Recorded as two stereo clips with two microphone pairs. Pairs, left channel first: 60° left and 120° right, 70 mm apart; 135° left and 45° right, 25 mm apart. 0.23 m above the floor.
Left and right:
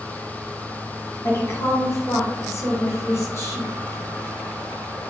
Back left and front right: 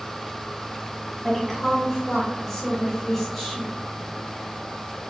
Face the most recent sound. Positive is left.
turn(degrees=60)